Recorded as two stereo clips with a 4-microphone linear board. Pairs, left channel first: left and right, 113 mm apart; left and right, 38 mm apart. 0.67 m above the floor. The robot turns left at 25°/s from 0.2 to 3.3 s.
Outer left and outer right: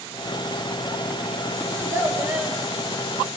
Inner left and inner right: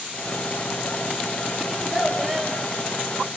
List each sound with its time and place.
1.7 s a child speaking: 30° right (ahead or behind), 2.5 m; by 2.6 s 10° right (ahead or behind), 2.5 m